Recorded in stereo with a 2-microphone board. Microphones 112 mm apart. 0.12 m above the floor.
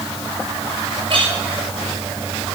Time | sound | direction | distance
1.1 | a clink | 45° right (ahead or behind) | 8.5 m